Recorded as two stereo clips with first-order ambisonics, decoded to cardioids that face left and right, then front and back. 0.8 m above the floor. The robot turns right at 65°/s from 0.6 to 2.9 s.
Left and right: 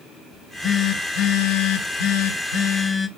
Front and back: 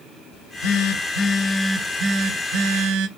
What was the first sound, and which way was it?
A phone buzzing, 15° left.